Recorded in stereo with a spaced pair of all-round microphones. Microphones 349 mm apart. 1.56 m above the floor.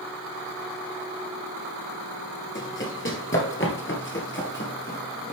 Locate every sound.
2.5 s running footsteps: 35° left (ahead or behind), 2.0 m; by 5.3 s 30° left (ahead or behind), 2 m